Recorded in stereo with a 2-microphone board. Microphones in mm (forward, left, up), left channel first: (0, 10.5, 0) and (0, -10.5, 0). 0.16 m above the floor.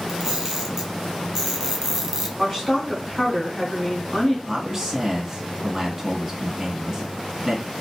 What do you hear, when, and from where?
0.1 s a camera shutter: 20° right (ahead or behind), 1.5 m
2.4 s a woman speaking: 10° left (ahead or behind), 1.6 m
4.5 s a man speaking: 15° right (ahead or behind), 2.0 m